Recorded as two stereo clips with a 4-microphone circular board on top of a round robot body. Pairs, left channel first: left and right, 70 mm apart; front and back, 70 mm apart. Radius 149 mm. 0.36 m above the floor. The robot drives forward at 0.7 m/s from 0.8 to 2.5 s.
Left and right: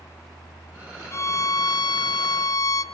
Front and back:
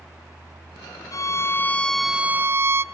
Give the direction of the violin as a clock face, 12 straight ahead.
11 o'clock.